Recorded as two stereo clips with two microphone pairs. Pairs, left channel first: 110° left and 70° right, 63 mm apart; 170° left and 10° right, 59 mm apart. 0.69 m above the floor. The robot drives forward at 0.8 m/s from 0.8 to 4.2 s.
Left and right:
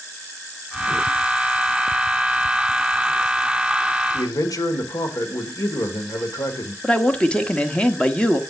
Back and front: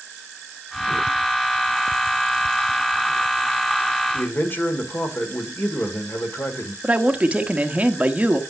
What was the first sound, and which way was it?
A man speaking, 115° left.